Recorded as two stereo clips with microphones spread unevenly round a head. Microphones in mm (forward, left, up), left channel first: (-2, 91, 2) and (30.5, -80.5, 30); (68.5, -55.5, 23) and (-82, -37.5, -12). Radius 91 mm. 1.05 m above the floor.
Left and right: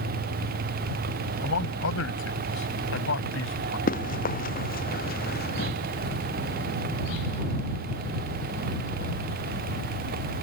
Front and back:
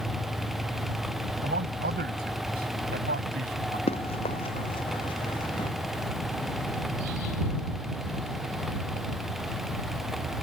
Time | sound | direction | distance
1.4 | a man speaking | 125° left | ?
3.9 | running footsteps | 55° left | ?